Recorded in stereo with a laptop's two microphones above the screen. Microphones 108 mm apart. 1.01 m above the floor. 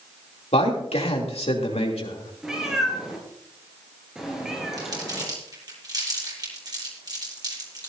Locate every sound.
0.5 s a man speaking: 80° left, 3 m
2.4 s a cat meowing: 5° right (ahead or behind), 3 m
4.8 s crumpling: 40° right (ahead or behind), 8 m